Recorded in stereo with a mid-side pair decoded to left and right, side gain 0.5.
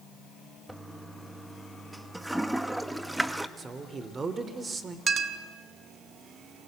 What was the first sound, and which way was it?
A toilet flushing, 5° right.